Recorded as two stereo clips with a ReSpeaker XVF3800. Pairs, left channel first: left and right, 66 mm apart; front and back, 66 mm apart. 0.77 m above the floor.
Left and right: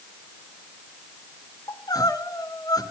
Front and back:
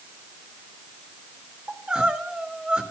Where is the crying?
100° left, 3 m.